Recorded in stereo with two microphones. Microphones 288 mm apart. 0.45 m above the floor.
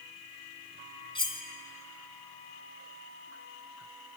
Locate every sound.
1.1 s cutlery clinking: 15° left (ahead or behind), 2 m